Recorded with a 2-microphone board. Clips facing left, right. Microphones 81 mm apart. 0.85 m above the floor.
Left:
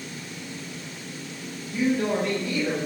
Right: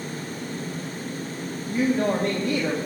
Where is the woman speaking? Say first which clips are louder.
Right 2 dB; 60° right (ahead or behind), 1.4 m.